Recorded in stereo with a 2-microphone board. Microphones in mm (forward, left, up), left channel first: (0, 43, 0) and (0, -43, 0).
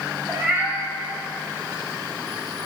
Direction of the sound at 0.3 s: 20° right (ahead or behind).